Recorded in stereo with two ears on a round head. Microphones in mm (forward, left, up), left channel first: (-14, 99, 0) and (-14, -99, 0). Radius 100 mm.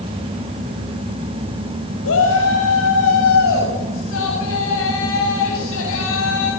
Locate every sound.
2.0 s a shout: 75° left (ahead or behind), 6.5 m; by 6.5 s 70° left (ahead or behind), 9.5 m